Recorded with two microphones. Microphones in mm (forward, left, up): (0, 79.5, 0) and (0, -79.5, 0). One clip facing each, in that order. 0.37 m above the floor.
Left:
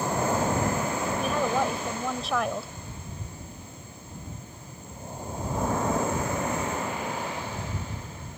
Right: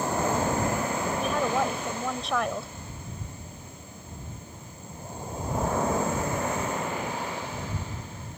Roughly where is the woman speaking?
Centre.